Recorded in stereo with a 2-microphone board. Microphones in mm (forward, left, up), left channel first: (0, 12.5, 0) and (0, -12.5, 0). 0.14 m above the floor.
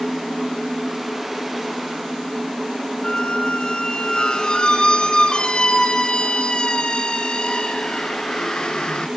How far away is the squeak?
About 0.7 m.